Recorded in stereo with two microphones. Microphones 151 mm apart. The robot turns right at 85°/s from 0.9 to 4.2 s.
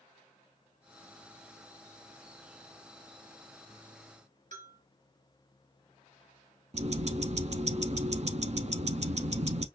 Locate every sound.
4.5 s a bell: 60° right (ahead or behind), 2.5 m
6.7 s ticking: 50° right (ahead or behind), 0.6 m